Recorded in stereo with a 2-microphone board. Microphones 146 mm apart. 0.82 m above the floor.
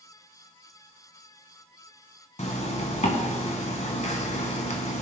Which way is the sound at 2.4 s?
55° left (ahead or behind).